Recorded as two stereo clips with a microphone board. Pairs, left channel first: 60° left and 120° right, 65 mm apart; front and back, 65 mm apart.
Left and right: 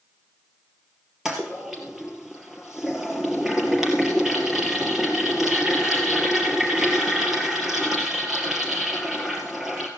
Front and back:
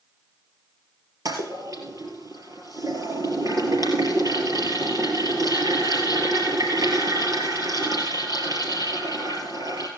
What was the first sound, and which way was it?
A toilet flushing, 160° left.